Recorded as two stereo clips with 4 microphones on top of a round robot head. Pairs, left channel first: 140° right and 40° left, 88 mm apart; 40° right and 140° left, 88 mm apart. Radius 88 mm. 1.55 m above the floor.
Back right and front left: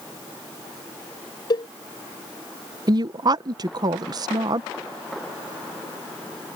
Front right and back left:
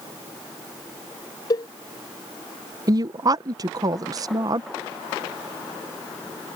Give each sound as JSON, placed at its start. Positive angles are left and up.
{"t": 1.5, "sound": "a cowbell", "azimuth_deg": -90}
{"t": 2.9, "sound": "a woman speaking", "azimuth_deg": 90}